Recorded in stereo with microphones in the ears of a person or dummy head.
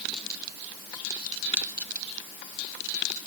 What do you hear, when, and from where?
Only background noise.